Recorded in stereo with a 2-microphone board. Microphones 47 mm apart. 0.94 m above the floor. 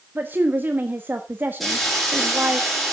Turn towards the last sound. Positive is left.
turn(degrees=0)  # may be behind; listen again after turning